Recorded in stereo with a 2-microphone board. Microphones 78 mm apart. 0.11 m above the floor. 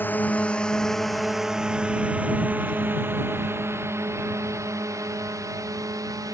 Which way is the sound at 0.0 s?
25° left (ahead or behind).